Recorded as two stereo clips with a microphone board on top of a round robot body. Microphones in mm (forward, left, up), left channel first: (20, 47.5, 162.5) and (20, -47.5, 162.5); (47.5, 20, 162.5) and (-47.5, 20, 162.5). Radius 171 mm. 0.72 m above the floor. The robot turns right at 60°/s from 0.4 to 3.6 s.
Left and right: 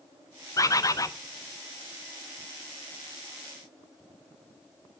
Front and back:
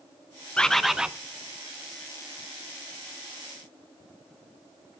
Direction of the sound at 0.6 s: 75° left.